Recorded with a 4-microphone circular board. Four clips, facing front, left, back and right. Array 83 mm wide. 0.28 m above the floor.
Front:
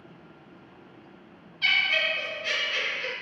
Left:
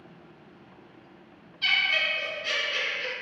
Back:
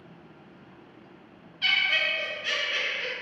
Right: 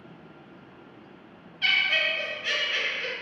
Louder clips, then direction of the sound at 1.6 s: Right 1 dB, front 1 dB; 120° right.